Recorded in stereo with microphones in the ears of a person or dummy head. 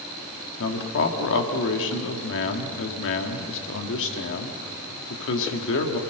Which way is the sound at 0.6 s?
70° left (ahead or behind).